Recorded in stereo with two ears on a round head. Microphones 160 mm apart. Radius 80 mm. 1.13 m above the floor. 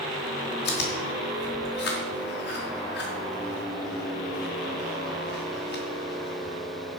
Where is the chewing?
65° left (ahead or behind), 4 m.